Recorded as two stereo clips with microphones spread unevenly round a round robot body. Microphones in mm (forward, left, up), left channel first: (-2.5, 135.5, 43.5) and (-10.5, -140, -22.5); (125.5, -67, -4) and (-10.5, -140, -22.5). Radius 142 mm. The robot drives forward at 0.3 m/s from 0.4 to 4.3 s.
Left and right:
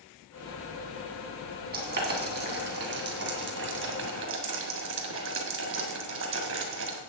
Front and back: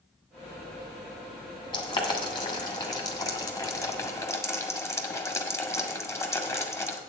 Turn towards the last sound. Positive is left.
turn(degrees=-40)